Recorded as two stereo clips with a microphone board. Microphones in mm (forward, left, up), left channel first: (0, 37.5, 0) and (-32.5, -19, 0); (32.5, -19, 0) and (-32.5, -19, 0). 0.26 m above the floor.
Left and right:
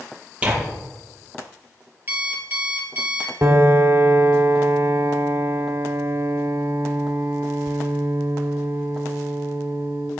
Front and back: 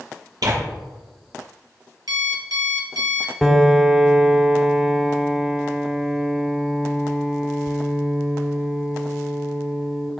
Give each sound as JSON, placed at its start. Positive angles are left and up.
{"t": 0.4, "sound": "tearing paper", "azimuth_deg": 170, "distance_m": 6.0}
{"t": 2.1, "sound": "an alarm clock", "azimuth_deg": 180, "distance_m": 3.0}
{"t": 3.4, "sound": "a piano", "azimuth_deg": -100, "distance_m": 1.0}